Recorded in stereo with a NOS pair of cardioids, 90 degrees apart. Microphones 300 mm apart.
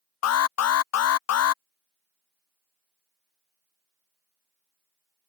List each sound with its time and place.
0.2 s an alarm: 55° left